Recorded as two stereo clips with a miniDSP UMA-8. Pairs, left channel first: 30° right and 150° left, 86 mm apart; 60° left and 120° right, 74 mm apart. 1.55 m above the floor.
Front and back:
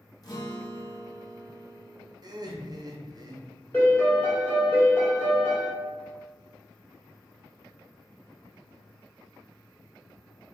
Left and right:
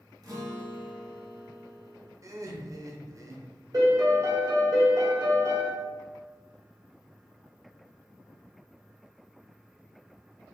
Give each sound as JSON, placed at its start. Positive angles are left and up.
{"t": 0.2, "sound": "a guitar", "azimuth_deg": -80, "distance_m": 1.1}
{"t": 2.2, "sound": "laughter", "azimuth_deg": -165, "distance_m": 0.9}
{"t": 3.7, "sound": "a piano", "azimuth_deg": -95, "distance_m": 1.6}